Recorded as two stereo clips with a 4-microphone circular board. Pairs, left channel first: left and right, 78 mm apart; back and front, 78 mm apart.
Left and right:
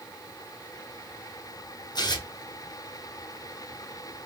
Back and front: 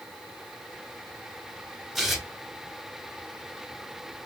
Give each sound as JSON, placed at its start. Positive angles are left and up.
{"t": 1.9, "sound": "tearing paper", "azimuth_deg": 90, "distance_m": 1.0}